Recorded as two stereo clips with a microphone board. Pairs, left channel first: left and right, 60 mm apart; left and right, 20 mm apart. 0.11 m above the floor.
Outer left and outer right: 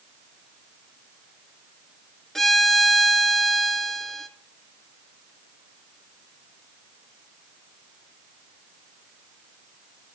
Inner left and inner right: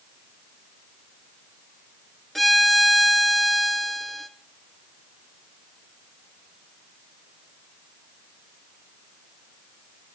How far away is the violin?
About 1.3 m.